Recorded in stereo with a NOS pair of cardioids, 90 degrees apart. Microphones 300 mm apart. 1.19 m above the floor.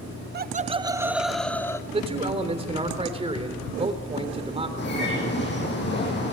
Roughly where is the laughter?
Ahead right.